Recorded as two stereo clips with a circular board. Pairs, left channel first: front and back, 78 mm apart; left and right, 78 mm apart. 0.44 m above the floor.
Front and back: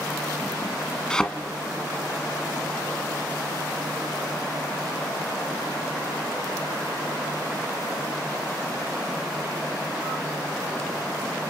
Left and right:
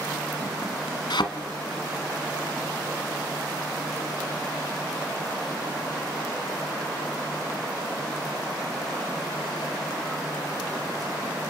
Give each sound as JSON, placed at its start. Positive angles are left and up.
{"t": 1.1, "sound": "a thud", "azimuth_deg": 80, "distance_m": 1.2}